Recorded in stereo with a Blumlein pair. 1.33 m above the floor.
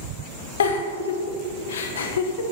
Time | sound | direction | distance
0.6 | a giggle | 60° left | 0.6 m